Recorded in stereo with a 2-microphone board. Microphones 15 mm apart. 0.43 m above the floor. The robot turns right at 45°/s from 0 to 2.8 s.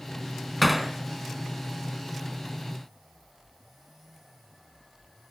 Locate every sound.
0.6 s hammering: 5° left (ahead or behind), 2 m; by 0.9 s 10° right (ahead or behind), 2 m